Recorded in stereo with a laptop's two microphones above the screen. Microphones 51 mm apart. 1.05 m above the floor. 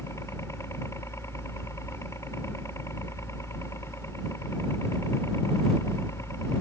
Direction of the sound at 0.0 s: 65° left (ahead or behind).